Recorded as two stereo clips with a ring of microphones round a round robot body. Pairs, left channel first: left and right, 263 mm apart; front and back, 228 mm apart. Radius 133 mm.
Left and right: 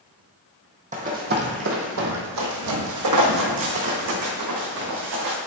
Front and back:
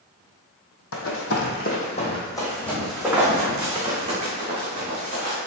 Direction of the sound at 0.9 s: 30° right.